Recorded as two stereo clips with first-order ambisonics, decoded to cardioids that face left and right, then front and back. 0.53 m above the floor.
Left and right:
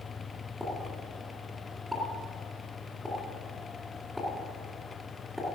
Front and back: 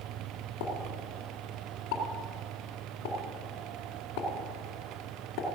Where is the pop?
Straight ahead, 2 m.